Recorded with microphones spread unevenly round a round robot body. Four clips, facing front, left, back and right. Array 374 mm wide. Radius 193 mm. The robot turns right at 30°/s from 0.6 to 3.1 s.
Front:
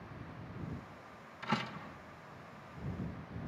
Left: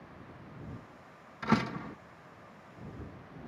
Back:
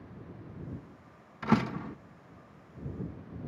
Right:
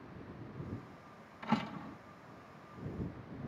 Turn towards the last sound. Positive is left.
turn(degrees=-155)